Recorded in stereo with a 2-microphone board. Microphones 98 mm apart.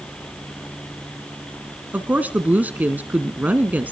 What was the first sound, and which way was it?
A woman speaking, 15° right (ahead or behind).